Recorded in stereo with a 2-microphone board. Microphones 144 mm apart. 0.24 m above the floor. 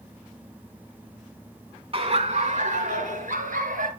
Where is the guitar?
I don't hear a guitar.